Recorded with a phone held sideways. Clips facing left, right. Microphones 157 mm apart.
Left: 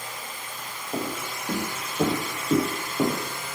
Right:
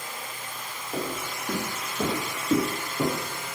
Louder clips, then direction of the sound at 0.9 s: Left 1 dB; 10° left (ahead or behind).